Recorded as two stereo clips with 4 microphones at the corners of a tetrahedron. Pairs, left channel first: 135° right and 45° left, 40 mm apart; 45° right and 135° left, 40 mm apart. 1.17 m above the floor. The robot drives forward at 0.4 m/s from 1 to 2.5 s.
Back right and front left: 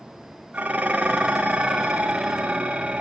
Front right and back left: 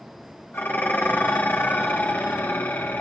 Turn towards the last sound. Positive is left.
turn(degrees=-15)